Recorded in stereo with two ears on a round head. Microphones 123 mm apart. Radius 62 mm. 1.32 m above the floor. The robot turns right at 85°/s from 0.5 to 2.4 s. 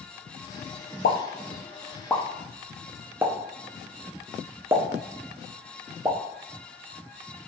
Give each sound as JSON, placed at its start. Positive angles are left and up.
{"t": 1.0, "sound": "a pop", "side_deg": 75, "distance_m": 0.6}